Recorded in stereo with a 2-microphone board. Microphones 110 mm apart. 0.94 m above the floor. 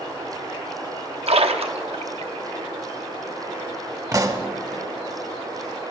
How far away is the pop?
About 1.0 m.